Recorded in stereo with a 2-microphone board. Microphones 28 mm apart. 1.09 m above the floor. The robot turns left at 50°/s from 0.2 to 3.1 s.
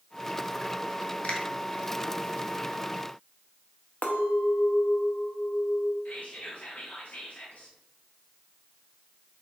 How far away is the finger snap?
About 1.1 m.